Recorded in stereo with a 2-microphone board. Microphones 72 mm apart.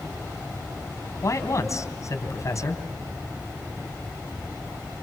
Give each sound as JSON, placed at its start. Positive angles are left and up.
{"t": 1.2, "sound": "a man speaking", "side_deg": 45, "distance_m": 3.5}